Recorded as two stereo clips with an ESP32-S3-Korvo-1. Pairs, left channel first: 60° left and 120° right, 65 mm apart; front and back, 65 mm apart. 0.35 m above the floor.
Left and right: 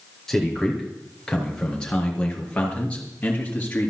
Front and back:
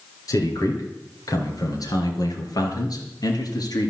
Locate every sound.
0.3 s a man speaking: 25° right, 5 m; by 3.9 s 5° right, 5 m